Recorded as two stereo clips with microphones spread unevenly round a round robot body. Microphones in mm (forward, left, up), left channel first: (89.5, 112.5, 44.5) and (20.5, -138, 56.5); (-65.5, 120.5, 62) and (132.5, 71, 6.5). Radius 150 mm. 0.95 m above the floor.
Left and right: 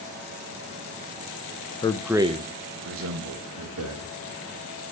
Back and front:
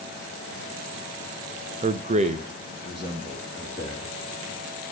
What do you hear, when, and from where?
1.8 s a man speaking: 10° left, 0.8 m; by 4.1 s 90° right, 2.5 m